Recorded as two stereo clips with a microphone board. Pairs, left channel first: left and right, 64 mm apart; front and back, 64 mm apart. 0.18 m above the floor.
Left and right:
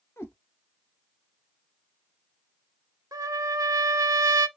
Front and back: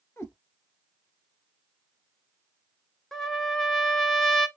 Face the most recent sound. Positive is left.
turn(degrees=-85)